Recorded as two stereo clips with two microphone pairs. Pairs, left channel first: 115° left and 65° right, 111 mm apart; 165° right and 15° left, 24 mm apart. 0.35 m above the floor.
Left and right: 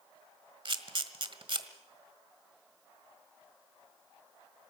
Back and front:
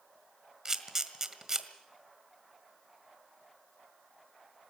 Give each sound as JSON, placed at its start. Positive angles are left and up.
{"t": 0.7, "sound": "a camera shutter", "azimuth_deg": -45, "distance_m": 1.6}